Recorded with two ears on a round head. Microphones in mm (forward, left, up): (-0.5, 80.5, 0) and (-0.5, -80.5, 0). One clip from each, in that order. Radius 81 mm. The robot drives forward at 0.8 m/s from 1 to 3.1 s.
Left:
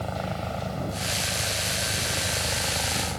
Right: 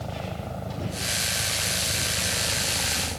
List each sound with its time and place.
0.0 s a helicopter: 45° left (ahead or behind)